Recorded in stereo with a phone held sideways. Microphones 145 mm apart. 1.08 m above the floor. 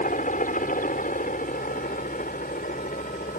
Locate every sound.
0.0 s a helicopter: 65° left (ahead or behind); by 3.4 s 70° left (ahead or behind)